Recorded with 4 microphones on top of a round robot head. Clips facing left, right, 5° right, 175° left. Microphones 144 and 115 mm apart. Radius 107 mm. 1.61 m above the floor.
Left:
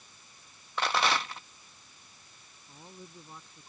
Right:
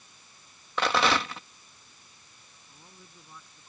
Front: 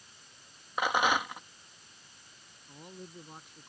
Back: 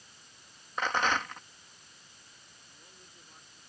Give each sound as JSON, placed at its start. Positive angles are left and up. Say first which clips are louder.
{"t": 0.8, "sound": "a rattle", "louder": "right 4 dB, front 2 dB", "azimuth_deg": -85}
{"t": 2.7, "sound": "a man speaking", "louder": "left 7 dB, front 15 dB", "azimuth_deg": 15}